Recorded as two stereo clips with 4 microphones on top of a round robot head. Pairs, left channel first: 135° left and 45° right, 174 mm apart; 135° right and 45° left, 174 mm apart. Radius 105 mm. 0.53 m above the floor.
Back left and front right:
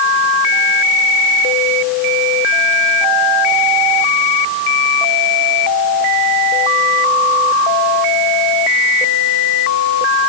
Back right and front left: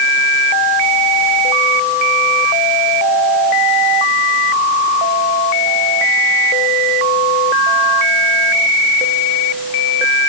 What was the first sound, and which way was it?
Only background noise.